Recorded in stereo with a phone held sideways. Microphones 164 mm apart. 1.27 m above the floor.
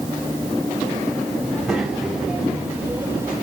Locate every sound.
1.4 s a child speaking: centre (ahead or behind), 4.5 m; by 3.3 s 20° right (ahead or behind), 2.5 m